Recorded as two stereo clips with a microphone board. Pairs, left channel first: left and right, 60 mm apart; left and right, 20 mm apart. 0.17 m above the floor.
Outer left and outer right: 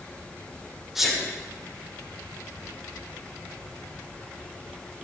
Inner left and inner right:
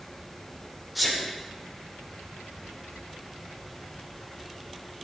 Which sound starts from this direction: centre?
A sneeze, at 0.9 s.